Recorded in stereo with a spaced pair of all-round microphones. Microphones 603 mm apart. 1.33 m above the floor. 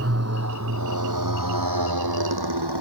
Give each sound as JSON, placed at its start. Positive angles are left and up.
{"t": 0.0, "sound": "a motorcycle", "side_deg": -25}